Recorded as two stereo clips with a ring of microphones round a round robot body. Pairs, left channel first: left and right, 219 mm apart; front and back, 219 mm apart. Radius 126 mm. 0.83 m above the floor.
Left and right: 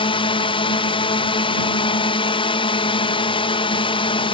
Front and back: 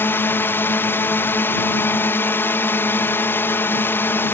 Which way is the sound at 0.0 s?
70° left.